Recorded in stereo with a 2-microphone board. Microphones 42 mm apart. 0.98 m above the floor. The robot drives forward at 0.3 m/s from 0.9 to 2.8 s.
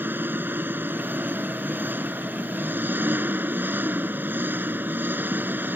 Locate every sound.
0.0 s an engine running: 55° right (ahead or behind)